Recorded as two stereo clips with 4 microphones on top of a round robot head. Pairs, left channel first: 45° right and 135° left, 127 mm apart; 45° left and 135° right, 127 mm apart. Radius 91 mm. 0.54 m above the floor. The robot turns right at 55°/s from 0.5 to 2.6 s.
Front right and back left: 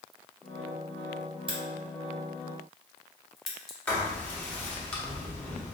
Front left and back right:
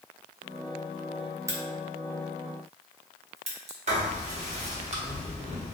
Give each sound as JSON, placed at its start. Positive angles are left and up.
{"t": 1.5, "sound": "a crack", "azimuth_deg": 165, "distance_m": 1.1}
{"t": 3.9, "sound": "writing", "azimuth_deg": -125, "distance_m": 1.3}